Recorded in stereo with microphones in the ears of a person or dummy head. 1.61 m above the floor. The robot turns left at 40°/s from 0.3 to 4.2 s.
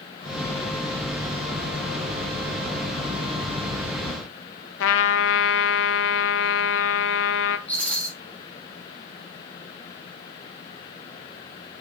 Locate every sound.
4.8 s a trumpet: 75° left (ahead or behind), 0.9 m
7.7 s a rattle: 5° left (ahead or behind), 3 m